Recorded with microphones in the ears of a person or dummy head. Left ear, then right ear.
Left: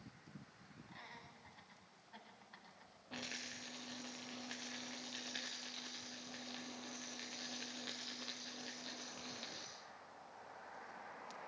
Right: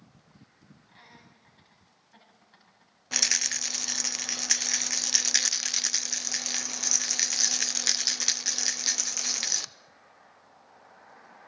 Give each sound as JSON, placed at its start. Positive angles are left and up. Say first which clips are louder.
{"t": 0.9, "sound": "laughter", "louder": "right 1 dB", "side_deg": 10, "distance_m": 10.0}
{"t": 3.1, "sound": "a rattle", "louder": "right 21 dB", "side_deg": -60, "distance_m": 0.6}